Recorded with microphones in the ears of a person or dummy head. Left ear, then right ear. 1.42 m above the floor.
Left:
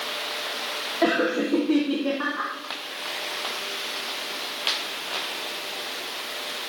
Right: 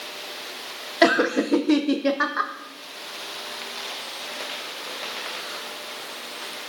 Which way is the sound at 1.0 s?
70° right (ahead or behind).